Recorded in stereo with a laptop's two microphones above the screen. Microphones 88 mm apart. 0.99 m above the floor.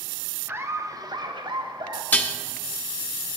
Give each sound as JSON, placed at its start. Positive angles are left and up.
{"t": 0.5, "sound": "laughter", "side_deg": -25, "distance_m": 1.0}
{"t": 2.1, "sound": "dishes clattering", "side_deg": 20, "distance_m": 0.9}